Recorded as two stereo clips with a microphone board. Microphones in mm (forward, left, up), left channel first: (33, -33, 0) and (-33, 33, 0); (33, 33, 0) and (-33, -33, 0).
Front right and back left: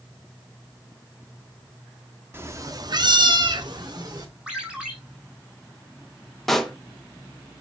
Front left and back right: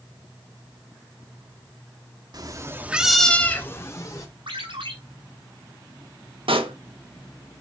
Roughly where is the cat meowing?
Behind.